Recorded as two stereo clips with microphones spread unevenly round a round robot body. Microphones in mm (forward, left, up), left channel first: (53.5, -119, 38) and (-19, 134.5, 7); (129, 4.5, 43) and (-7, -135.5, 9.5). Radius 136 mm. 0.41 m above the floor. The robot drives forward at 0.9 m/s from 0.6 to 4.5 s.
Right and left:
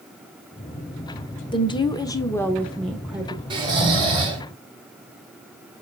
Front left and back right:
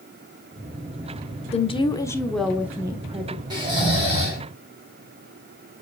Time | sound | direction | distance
1.5 | a woman speaking | 5° right | 1.2 m
3.5 | snoring | 170° left | 2 m